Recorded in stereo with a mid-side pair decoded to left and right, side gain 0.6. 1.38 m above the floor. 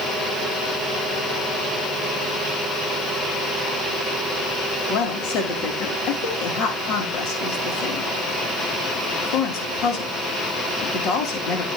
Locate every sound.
4.9 s a woman speaking: 60° left, 3.5 m